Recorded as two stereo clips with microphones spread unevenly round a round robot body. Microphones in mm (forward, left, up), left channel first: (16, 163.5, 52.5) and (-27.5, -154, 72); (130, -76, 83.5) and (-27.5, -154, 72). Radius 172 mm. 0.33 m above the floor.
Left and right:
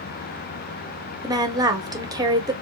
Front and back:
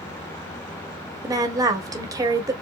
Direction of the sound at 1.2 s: 170° right.